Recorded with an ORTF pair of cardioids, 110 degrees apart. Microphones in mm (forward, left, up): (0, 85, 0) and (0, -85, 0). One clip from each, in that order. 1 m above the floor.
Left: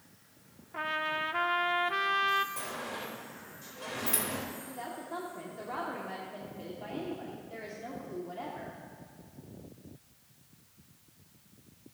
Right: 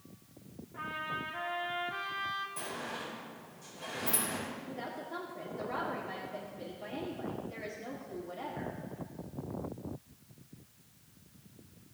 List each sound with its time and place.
0.7 s a trumpet: 55° left, 0.8 m
2.6 s a sliding door: 25° left, 4 m
4.7 s a woman speaking: 10° left, 2 m